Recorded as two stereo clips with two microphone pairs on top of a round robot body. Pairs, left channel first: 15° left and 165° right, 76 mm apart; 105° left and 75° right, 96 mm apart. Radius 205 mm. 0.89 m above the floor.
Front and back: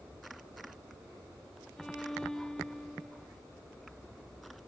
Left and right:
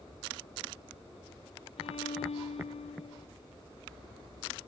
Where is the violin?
100° left, 1.2 m.